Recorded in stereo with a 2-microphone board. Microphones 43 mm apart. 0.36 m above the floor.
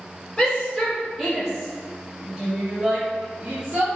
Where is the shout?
15° left (ahead or behind), 1.9 m; by 3.9 s 40° right (ahead or behind), 2.5 m.